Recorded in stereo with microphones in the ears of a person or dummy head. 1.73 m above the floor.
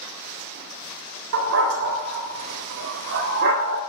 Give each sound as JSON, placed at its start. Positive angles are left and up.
{"t": 1.3, "sound": "a dog barking", "side_deg": -65, "distance_m": 3.5}